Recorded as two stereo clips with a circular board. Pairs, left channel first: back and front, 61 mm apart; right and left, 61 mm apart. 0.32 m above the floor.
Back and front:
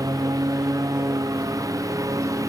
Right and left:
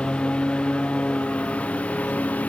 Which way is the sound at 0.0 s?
15° right.